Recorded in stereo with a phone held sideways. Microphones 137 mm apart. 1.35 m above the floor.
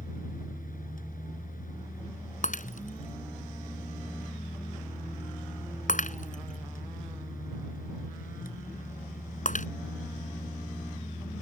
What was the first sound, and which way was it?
A fan, 85° left.